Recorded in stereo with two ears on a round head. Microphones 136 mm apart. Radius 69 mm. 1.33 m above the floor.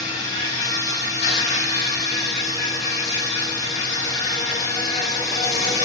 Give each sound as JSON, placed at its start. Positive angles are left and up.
{"t": 0.0, "sound": "an insect", "side_deg": 55, "distance_m": 5.0}